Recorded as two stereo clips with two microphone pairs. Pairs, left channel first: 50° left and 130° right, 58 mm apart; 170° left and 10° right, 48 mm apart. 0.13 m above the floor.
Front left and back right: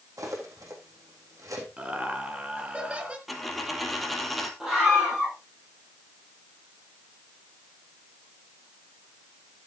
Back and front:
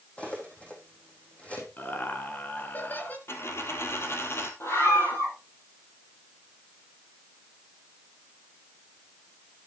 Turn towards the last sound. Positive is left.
turn(degrees=150)